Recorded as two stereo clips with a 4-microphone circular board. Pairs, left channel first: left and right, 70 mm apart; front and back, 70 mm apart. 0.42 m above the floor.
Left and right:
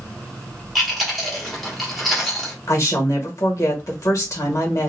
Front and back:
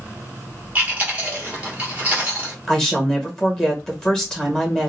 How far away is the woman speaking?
About 1.2 m.